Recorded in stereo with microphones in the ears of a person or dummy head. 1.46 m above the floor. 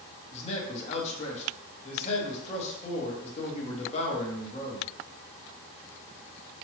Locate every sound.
0.3 s a man speaking: 35° left (ahead or behind), 1.0 m